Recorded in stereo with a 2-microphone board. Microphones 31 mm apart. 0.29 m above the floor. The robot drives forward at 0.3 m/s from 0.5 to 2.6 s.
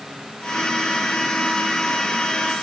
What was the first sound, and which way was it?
Only background noise.